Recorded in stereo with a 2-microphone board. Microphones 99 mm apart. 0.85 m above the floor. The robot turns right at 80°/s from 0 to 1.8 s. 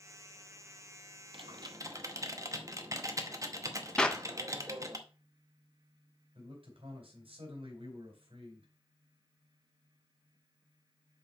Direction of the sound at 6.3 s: 70° right (ahead or behind).